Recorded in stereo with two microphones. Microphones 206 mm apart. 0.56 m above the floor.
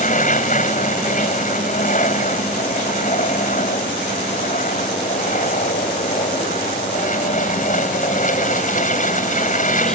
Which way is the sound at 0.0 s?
40° left (ahead or behind).